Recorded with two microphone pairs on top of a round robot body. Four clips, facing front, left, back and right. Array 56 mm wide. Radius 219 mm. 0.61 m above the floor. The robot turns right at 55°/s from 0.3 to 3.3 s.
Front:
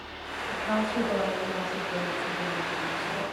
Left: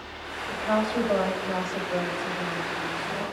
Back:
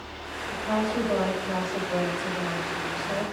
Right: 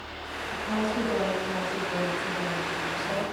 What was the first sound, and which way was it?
A woman speaking, 65° left.